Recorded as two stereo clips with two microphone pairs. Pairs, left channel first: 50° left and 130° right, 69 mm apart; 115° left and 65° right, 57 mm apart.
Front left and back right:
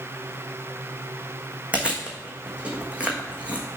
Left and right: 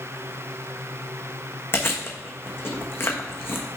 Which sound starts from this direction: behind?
Chewing, at 1.7 s.